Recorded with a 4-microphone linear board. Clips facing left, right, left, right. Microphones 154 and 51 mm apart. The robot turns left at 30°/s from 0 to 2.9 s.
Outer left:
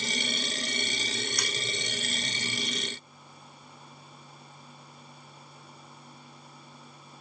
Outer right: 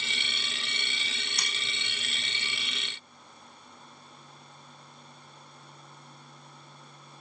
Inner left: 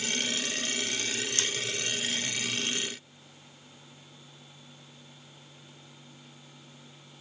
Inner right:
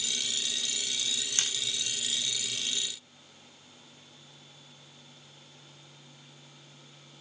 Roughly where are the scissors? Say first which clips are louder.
Outer left 6 dB, inner left 1 dB; right.